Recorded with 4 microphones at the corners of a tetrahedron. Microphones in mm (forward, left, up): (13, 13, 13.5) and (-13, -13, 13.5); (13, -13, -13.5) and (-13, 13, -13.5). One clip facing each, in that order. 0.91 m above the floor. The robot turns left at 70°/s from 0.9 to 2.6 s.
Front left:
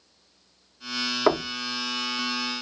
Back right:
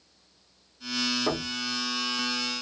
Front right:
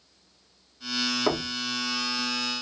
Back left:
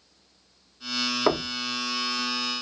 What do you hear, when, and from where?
1.3 s knocking: 75° left, 0.7 m; by 1.5 s 55° left, 0.7 m